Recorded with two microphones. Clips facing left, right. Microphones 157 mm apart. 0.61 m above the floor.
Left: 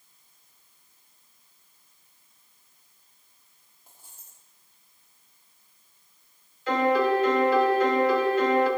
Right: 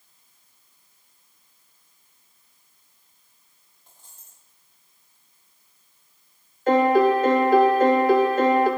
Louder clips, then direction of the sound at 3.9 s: Even; 10° left (ahead or behind).